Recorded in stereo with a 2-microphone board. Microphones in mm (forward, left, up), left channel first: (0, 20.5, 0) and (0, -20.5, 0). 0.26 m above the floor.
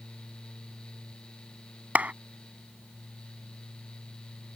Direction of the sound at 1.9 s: 40° right (ahead or behind).